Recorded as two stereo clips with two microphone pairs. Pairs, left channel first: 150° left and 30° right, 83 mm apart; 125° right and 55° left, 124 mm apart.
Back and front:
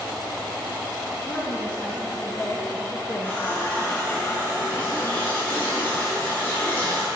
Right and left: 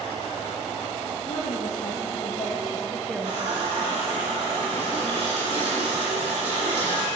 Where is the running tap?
90° left, 2.5 m.